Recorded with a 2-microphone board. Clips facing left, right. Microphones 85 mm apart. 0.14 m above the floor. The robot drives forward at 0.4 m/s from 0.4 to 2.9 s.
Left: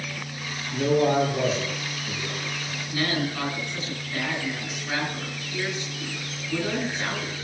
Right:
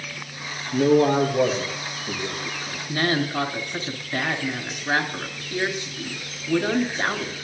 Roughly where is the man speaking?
Right.